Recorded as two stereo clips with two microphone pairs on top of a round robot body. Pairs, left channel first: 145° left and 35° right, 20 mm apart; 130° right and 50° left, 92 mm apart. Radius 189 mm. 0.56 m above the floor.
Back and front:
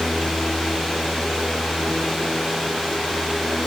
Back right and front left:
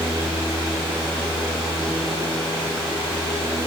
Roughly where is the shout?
I don't hear a shout.